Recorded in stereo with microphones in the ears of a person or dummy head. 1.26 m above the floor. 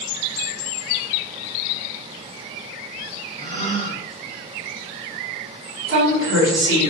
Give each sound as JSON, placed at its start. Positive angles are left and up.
{"t": 3.4, "sound": "a gasp", "side_deg": -40, "distance_m": 0.5}
{"t": 5.9, "sound": "a woman speaking", "side_deg": -70, "distance_m": 1.1}